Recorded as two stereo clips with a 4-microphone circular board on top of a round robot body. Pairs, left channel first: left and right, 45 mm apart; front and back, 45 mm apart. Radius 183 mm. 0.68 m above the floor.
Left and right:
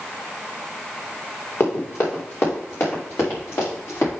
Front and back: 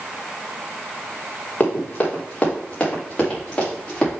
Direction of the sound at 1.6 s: 55° left.